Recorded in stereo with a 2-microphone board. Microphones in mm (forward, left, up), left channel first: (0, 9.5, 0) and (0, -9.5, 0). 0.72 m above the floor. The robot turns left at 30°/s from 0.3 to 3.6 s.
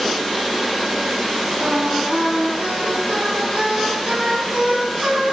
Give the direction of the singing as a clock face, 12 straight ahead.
2 o'clock.